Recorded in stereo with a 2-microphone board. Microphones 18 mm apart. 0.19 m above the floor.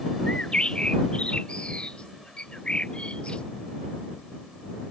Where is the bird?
80° left.